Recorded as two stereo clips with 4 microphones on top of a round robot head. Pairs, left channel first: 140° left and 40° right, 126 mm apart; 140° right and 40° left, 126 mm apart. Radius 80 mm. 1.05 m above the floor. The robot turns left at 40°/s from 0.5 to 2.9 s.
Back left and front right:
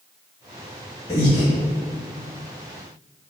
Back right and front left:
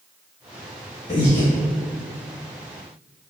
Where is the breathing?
160° right, 1.0 m; by 1.5 s straight behind, 1.0 m.